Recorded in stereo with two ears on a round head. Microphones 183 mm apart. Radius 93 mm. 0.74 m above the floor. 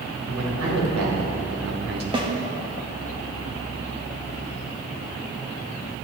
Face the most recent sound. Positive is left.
turn(degrees=-25)  # may be behind; listen again after turning